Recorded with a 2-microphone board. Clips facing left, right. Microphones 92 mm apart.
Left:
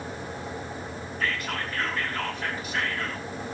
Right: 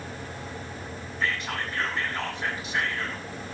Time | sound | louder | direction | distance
1.2 | whispering | right 1 dB | 20° right (ahead or behind) | 5 m